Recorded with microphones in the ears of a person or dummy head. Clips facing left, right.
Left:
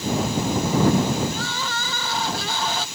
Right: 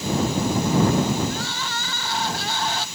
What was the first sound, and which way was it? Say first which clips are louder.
Crying: left 1 dB; 70° left (ahead or behind).